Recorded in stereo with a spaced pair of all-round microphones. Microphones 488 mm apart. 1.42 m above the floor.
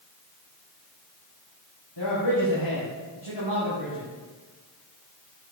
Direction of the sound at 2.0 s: 70° left (ahead or behind).